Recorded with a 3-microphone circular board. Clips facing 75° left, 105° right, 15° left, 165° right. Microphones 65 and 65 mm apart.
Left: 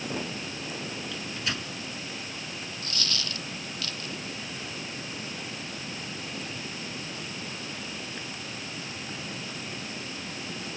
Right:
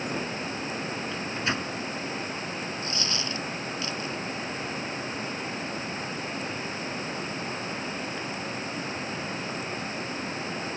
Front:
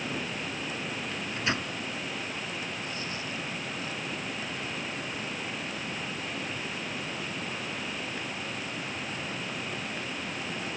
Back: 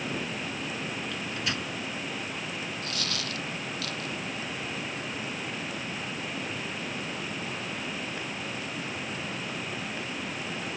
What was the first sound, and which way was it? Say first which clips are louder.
A microwave: right 5 dB, front 1 dB; 45° right.